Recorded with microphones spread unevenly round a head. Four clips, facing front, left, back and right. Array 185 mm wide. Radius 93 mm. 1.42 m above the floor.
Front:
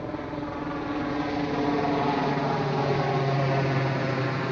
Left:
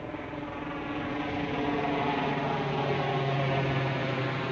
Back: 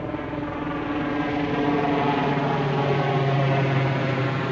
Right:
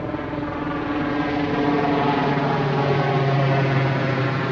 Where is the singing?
No singing in this recording.